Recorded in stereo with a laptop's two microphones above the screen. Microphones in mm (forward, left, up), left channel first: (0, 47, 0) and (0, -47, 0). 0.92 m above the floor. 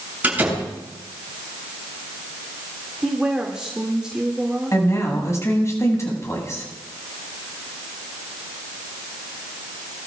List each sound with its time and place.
0.2 s a door slam: 15° right (ahead or behind), 7.5 m
3.0 s a woman speaking: 10° right (ahead or behind), 2 m
4.7 s a woman speaking: 30° left (ahead or behind), 6 m